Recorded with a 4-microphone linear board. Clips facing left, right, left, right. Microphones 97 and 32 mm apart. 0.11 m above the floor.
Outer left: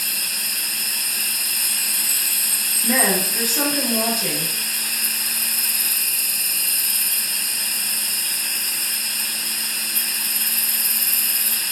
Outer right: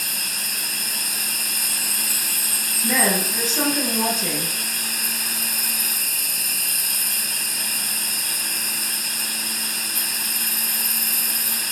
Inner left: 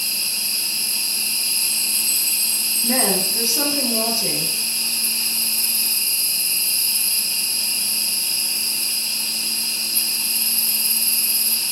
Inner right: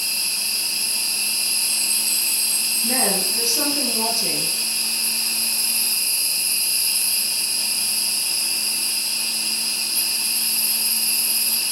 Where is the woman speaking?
10° left (ahead or behind), 4 m.